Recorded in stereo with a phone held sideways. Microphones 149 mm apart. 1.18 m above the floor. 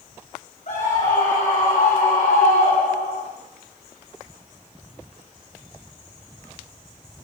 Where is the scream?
60° left (ahead or behind), 5 m; by 3.3 s 80° left, 3 m.